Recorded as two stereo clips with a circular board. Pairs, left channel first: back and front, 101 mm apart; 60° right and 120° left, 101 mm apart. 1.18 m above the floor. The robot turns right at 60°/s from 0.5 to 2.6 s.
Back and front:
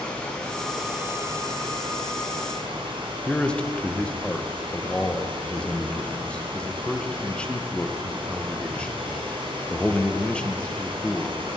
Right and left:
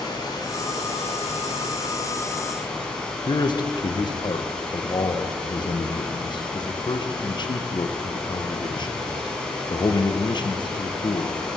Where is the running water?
105° right, 2.5 m; by 11.6 s 20° left, 2.5 m.